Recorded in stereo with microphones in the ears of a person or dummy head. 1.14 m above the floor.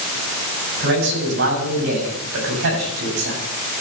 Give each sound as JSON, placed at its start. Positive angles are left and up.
{"t": 0.8, "sound": "a man speaking", "side_deg": -65, "distance_m": 7.0}